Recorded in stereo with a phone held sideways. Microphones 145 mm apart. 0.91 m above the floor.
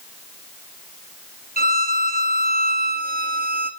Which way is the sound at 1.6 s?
85° right.